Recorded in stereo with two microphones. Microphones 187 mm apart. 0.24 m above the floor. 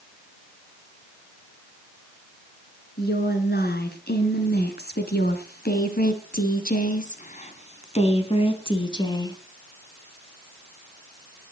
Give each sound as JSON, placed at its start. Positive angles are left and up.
{"t": 3.0, "sound": "a woman speaking", "side_deg": 65, "distance_m": 3.5}